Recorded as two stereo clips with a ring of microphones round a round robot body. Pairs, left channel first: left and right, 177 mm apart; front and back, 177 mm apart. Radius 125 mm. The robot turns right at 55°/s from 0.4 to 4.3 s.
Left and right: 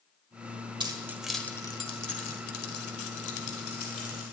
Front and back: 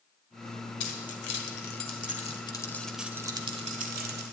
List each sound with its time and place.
0.8 s keys jangling: 25° right, 1.7 m; by 4.3 s 165° left, 1.7 m